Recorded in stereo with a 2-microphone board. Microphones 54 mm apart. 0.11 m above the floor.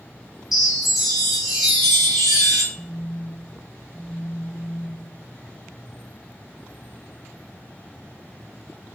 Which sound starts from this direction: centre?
A chime, at 0.5 s.